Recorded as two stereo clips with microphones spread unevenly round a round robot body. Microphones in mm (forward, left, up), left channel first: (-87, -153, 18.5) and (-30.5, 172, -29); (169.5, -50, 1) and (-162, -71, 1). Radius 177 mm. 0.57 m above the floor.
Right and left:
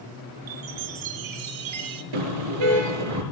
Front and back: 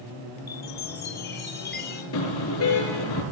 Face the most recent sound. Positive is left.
turn(degrees=60)